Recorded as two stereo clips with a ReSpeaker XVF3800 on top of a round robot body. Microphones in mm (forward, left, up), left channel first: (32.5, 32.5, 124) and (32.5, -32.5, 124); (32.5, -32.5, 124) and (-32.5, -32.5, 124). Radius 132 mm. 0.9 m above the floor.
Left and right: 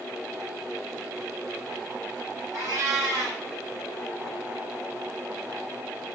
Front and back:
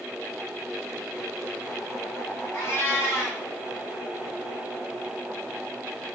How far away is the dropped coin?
No dropped coin in this recording.